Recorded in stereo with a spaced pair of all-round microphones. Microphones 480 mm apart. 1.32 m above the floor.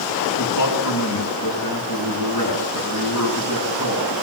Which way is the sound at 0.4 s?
40° left (ahead or behind).